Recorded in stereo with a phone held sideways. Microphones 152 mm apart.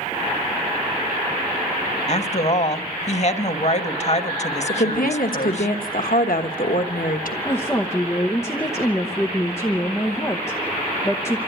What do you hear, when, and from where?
2.1 s a woman speaking: 45° left (ahead or behind), 1.2 m
4.7 s a woman speaking: 70° left (ahead or behind), 1.2 m
7.5 s a woman speaking: 20° left (ahead or behind), 0.9 m